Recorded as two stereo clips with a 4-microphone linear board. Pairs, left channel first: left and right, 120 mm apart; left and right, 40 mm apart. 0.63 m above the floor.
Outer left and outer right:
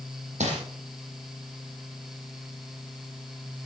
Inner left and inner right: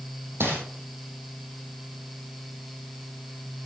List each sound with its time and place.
0.4 s crumpling: 75° right (ahead or behind), 5.5 m